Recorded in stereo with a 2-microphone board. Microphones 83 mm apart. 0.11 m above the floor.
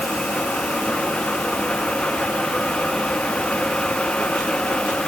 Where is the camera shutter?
I don't hear a camera shutter.